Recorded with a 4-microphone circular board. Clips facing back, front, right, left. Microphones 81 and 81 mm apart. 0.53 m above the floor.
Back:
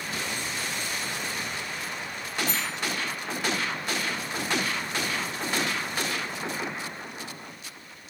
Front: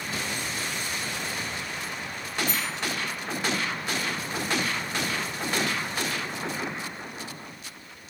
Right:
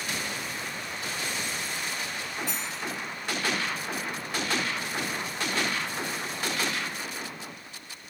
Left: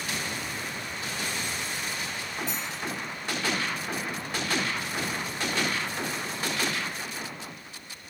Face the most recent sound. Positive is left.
turn(degrees=180)